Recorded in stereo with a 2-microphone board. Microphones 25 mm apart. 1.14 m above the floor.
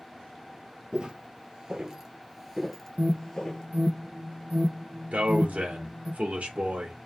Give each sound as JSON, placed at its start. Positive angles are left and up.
{"t": 0.9, "sound": "footsteps", "side_deg": -40, "distance_m": 1.4}
{"t": 3.0, "sound": "an alarm", "side_deg": -75, "distance_m": 0.9}
{"t": 5.1, "sound": "a man speaking", "side_deg": -65, "distance_m": 2.5}